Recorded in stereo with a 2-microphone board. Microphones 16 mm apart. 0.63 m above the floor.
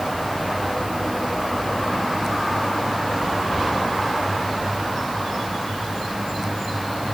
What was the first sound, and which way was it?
Only background noise.